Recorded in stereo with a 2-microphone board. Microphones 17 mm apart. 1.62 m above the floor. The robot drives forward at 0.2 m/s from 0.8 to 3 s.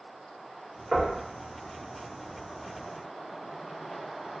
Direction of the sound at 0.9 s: 25° right (ahead or behind).